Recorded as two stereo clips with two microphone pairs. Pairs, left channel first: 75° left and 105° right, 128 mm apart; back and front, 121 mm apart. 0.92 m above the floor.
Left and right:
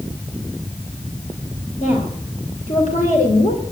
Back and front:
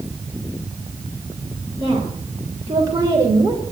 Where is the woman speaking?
55° left, 3.5 m; by 3.6 s 65° left, 2.5 m.